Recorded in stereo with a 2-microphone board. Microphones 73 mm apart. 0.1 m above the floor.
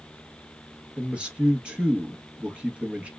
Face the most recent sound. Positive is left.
turn(degrees=-15)  # may be behind; listen again after turning